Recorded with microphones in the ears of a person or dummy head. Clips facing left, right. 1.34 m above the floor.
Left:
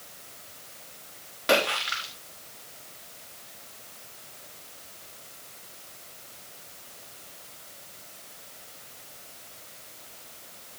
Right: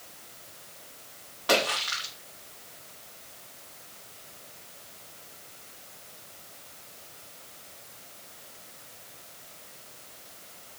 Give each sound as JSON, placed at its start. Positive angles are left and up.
{"t": 1.5, "sound": "a splash", "side_deg": 20, "distance_m": 3.5}